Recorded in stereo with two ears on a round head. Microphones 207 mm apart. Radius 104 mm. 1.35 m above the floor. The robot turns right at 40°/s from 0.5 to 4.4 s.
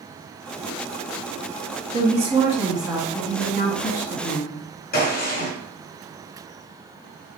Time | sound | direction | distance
1.9 | a woman speaking | 40° right | 1.6 m
4.9 | a gunshot | 40° left (ahead or behind) | 1.6 m